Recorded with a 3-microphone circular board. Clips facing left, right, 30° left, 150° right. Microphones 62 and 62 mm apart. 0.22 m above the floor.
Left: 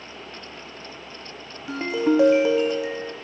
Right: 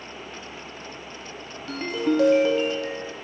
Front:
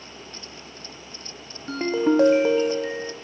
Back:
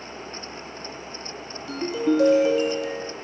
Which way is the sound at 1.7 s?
30° left.